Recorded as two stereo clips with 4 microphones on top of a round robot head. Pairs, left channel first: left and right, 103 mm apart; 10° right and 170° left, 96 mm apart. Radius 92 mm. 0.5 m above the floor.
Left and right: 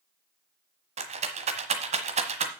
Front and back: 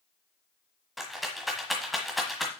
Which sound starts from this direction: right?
A rattle, at 1.0 s.